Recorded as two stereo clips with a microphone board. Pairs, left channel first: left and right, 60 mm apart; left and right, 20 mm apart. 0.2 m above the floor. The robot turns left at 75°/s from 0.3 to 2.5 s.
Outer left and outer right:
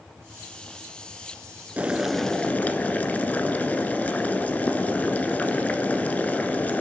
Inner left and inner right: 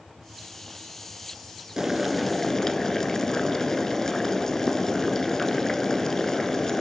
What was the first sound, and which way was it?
Boiling, 150° right.